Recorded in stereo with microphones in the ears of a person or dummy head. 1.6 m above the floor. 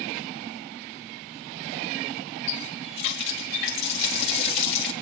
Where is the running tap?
65° left (ahead or behind), 2.0 m.